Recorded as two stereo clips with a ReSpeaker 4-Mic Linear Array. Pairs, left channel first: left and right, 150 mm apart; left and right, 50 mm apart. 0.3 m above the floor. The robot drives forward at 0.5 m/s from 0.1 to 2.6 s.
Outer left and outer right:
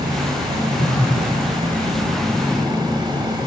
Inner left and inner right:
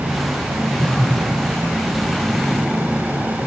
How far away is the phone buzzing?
About 2.0 m.